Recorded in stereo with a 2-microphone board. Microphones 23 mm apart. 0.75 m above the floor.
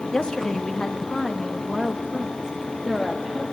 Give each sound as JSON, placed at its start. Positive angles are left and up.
{"t": 0.1, "sound": "a woman speaking", "side_deg": 35, "distance_m": 1.2}